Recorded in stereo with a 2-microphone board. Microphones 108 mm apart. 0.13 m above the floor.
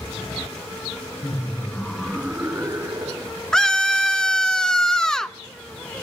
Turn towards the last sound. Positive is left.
turn(degrees=5)  # may be behind; listen again after turning